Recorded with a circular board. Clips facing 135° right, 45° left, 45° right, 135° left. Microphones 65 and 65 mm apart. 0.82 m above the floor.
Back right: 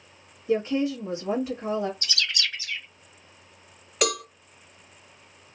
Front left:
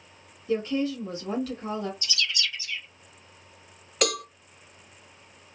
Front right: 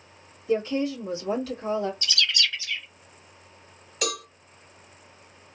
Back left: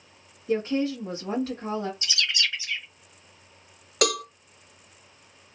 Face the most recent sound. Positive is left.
turn(degrees=140)